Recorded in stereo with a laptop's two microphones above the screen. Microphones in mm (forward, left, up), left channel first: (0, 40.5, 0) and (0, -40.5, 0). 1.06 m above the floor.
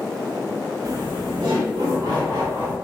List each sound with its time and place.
0.8 s laughter: 50° right (ahead or behind), 0.7 m